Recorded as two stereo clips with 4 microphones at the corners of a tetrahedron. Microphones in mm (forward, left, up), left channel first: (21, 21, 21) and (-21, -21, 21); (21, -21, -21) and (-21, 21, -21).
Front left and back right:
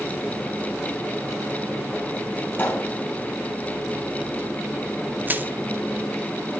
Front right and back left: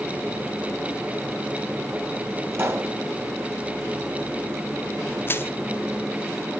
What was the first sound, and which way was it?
A pop, 95° left.